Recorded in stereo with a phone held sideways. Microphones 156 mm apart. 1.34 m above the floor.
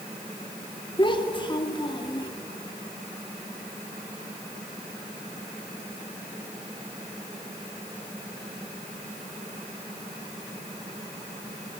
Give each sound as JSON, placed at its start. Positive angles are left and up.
{"t": 1.0, "sound": "a child speaking", "side_deg": 30, "distance_m": 1.8}